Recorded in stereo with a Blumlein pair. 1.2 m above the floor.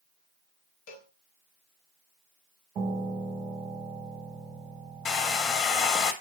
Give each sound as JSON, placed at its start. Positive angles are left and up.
{"t": 0.9, "sound": "a cowbell", "azimuth_deg": 45, "distance_m": 0.6}
{"t": 2.8, "sound": "a piano", "azimuth_deg": -30, "distance_m": 0.8}
{"t": 5.0, "sound": "a hair dryer", "azimuth_deg": 30, "distance_m": 0.5}